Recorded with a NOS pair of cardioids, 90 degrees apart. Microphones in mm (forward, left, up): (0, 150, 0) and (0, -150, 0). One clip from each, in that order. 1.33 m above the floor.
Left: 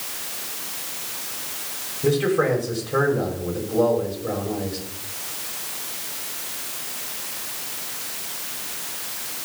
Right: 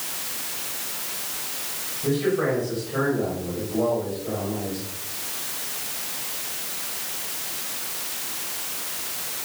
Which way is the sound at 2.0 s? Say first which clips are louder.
Left 3 dB; 55° left.